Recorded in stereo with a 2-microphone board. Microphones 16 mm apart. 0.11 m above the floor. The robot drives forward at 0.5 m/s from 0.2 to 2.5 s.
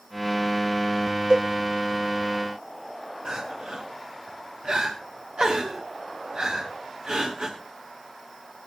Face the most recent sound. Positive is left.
turn(degrees=-60)  # may be behind; listen again after turning